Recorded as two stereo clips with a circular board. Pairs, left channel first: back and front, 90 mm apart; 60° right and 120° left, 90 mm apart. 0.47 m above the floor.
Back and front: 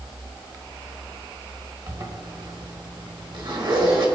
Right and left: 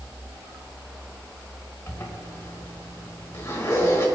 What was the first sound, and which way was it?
A zipper, 10° right.